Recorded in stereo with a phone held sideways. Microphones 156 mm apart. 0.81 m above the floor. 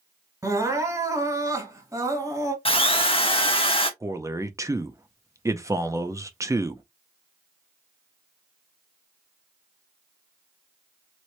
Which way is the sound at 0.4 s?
20° right (ahead or behind).